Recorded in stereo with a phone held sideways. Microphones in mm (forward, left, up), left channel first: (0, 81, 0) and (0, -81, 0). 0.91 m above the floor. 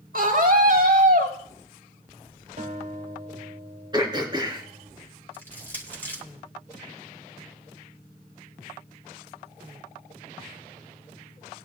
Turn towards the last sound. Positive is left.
turn(degrees=15)  # may be behind; listen again after turning